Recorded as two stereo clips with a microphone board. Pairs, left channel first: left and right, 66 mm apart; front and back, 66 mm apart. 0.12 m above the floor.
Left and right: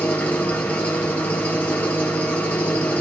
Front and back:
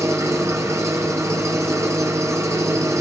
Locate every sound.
0.0 s an engine running: 150° left, 2.5 m